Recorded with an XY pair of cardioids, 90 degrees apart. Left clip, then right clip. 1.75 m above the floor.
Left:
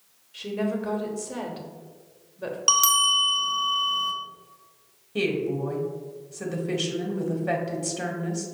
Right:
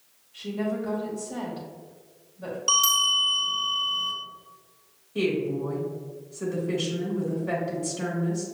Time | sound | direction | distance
0.3 | a woman speaking | 65° left | 1.0 m
2.7 | a bell | 65° left | 0.6 m
5.2 | a woman speaking | 60° left | 1.1 m